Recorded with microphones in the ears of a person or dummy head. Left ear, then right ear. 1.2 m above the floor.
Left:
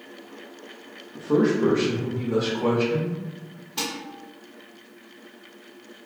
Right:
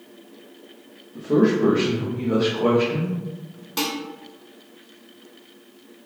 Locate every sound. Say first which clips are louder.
1.1 s a man speaking: right 2 dB; 40° left (ahead or behind), 0.6 m; by 3.7 s 60° right (ahead or behind), 1.4 m
3.8 s dishes clattering: right 4 dB; 60° right (ahead or behind), 1.4 m